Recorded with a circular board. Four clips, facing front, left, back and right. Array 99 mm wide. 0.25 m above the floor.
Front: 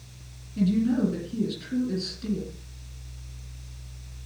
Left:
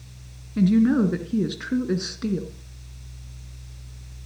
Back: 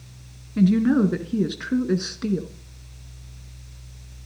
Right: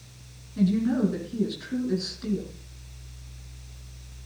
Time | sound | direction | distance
0.6 | a woman speaking | 145° left | 2.5 m